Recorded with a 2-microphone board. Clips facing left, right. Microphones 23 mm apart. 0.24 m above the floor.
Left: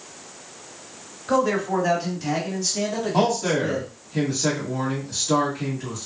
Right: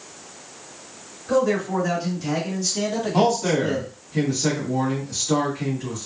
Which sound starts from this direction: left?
A man speaking, at 1.3 s.